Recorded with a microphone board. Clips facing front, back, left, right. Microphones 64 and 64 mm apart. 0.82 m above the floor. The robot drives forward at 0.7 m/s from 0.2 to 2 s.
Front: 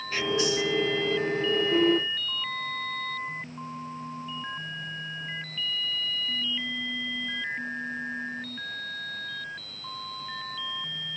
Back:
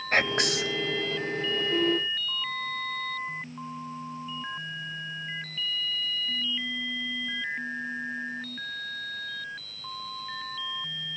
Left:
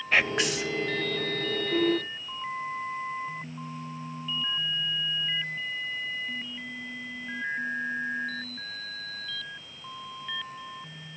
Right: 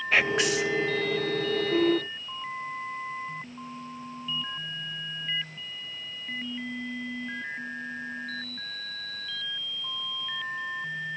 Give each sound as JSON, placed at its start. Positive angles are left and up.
{"t": 0.1, "sound": "whispering", "azimuth_deg": 180, "distance_m": 0.5}